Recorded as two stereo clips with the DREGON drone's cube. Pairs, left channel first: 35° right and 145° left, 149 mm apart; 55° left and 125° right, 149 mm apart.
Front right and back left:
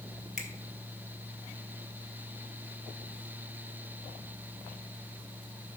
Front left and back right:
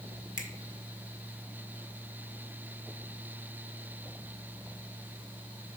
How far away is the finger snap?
About 1.6 m.